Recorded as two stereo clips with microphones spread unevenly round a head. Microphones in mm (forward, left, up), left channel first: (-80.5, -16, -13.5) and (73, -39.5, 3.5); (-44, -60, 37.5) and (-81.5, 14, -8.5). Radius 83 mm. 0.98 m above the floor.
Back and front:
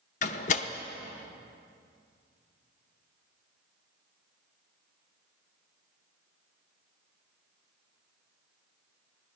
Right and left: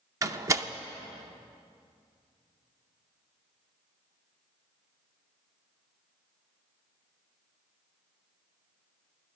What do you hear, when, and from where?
0.2 s a door slam: 135° left, 0.6 m